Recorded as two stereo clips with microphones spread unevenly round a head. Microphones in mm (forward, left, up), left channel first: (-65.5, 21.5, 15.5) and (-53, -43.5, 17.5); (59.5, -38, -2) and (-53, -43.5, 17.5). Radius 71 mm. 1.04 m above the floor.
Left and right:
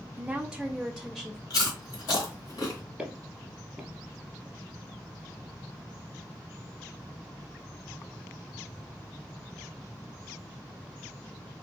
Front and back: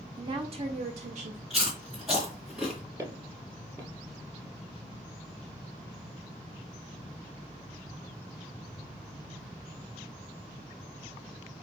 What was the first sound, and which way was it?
A woman speaking, 135° right.